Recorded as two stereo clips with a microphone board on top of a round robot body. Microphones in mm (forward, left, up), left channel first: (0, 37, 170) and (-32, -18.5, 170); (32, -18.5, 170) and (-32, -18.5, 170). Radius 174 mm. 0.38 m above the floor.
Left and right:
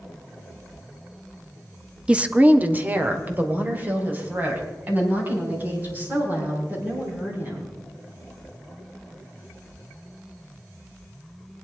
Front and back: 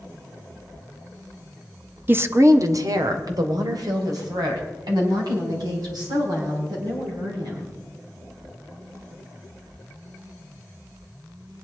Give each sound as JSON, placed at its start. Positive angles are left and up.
{"t": 2.1, "sound": "a woman speaking", "azimuth_deg": -175, "distance_m": 1.0}